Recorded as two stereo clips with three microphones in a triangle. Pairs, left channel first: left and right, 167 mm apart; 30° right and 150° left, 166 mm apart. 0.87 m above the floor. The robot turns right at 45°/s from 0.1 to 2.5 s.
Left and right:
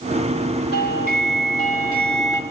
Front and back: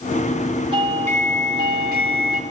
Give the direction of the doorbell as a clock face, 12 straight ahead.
9 o'clock.